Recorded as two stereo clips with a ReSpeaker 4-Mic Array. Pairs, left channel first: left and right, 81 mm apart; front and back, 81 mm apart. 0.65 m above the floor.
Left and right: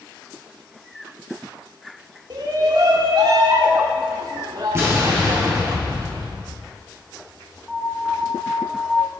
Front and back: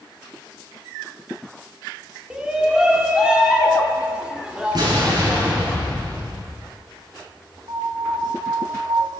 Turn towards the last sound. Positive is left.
turn(degrees=180)